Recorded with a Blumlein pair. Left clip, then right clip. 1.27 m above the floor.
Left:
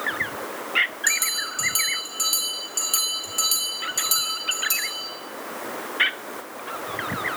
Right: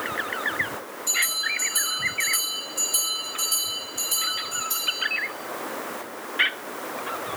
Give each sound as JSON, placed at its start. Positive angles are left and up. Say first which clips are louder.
{"t": 1.1, "sound": "a bell", "louder": "even", "azimuth_deg": 55, "distance_m": 1.9}